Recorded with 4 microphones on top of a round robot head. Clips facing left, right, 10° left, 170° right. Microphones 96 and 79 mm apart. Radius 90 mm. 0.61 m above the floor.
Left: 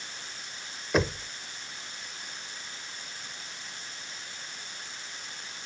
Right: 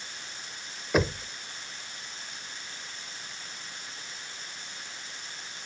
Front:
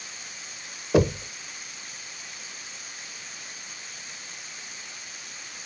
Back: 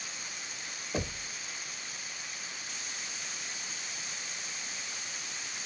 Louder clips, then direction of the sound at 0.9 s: Right 1 dB, front 15 dB; straight ahead.